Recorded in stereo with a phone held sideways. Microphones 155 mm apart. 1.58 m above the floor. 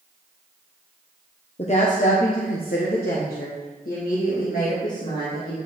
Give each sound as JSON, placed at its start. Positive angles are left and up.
{"t": 1.6, "sound": "a woman speaking", "side_deg": 45, "distance_m": 0.8}